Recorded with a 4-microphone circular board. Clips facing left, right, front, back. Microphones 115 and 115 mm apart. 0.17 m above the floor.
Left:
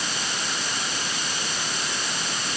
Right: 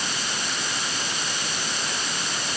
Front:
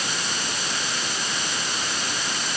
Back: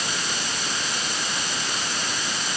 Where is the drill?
I don't hear a drill.